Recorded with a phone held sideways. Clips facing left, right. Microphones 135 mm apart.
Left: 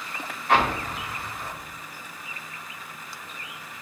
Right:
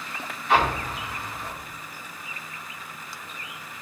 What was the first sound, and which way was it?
An explosion, 55° left (ahead or behind).